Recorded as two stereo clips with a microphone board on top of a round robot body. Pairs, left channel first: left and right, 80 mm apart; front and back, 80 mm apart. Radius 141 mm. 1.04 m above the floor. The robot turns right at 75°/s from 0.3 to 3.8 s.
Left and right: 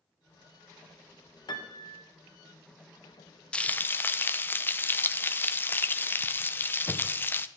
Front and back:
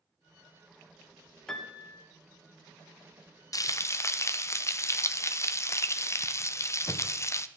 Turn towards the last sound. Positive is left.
turn(degrees=35)